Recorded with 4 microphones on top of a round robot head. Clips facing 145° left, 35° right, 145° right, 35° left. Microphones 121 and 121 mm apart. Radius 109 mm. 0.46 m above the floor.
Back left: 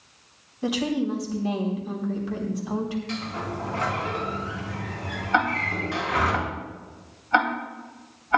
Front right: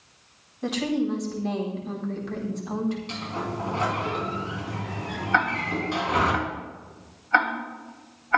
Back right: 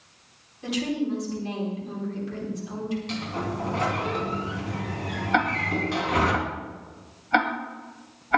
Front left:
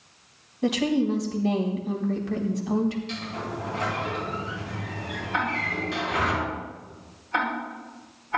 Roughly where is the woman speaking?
Ahead left.